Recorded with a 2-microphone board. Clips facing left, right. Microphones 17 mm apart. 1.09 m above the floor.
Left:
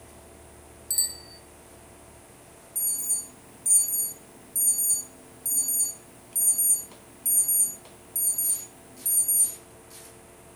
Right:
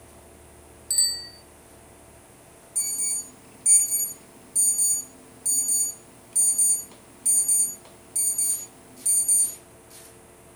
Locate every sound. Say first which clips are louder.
0.9 s a bicycle bell: right 5 dB; 20° right (ahead or behind), 5 m
2.8 s an alarm: right 2 dB; 45° right (ahead or behind), 8 m